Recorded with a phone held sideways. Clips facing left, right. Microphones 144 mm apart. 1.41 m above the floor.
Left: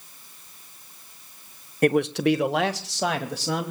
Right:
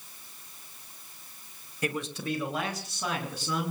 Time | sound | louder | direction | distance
1.8 | a man speaking | left 13 dB | 55° left (ahead or behind) | 0.8 m